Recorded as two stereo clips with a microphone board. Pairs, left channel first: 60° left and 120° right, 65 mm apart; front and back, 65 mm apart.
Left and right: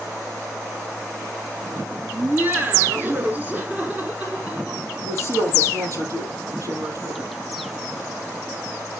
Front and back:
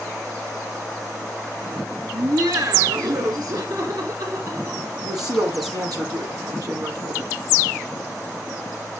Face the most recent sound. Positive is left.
turn(degrees=-155)